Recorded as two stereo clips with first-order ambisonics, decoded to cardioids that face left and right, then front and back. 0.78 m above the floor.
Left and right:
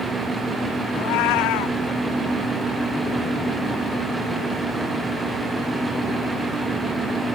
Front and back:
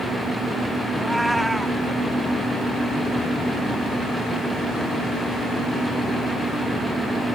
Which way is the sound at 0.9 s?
90° left.